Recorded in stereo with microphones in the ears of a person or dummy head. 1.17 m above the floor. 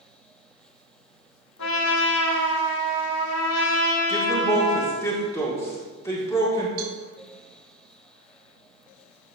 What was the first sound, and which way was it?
A trumpet, 85° left.